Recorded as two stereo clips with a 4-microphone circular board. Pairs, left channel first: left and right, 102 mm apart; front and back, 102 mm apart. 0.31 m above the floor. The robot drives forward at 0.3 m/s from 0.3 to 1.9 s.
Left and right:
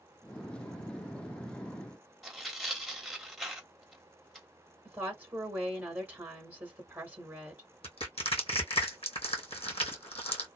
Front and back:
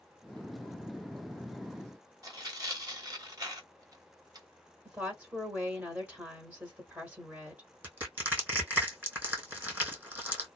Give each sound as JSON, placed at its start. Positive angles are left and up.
{"t": 2.2, "sound": "tearing paper", "azimuth_deg": 180, "distance_m": 1.0}
{"t": 4.8, "sound": "a woman speaking", "azimuth_deg": -130, "distance_m": 1.0}
{"t": 7.8, "sound": "crushing", "azimuth_deg": 105, "distance_m": 2.5}